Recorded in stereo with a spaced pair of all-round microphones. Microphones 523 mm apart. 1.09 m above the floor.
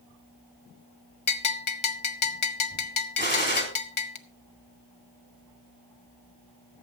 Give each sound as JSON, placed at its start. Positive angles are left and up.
{"t": 1.3, "sound": "a bell", "side_deg": 75, "distance_m": 0.8}
{"t": 3.2, "sound": "a gunshot", "side_deg": 20, "distance_m": 3.5}